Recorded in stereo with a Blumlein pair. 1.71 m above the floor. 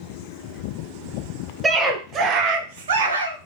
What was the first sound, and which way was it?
A scream, 15° right.